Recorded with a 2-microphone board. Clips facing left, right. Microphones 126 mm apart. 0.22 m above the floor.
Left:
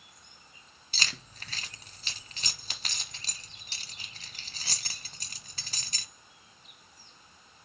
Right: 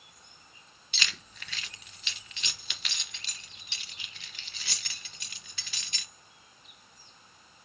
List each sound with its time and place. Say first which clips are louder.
0.9 s keys jangling: even; 40° left (ahead or behind), 1.0 m